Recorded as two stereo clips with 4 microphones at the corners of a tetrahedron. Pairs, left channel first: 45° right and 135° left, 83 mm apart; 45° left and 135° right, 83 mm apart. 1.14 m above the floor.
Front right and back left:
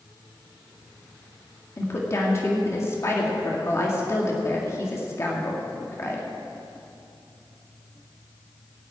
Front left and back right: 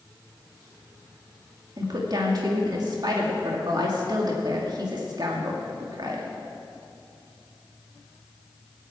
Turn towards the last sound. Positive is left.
turn(degrees=-100)